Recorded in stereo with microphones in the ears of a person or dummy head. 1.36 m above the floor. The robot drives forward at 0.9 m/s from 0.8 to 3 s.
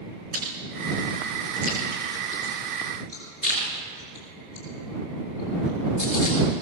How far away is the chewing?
About 6.5 m.